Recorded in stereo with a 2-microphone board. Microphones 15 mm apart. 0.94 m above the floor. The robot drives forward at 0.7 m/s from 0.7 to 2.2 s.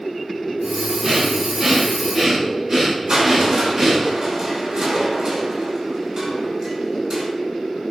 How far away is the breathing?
About 7.5 m.